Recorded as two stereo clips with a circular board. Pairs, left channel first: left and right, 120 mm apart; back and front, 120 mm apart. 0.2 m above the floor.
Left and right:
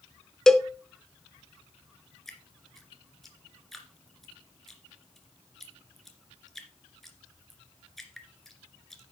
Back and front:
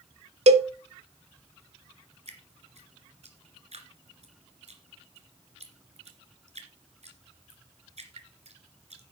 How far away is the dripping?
About 2 m.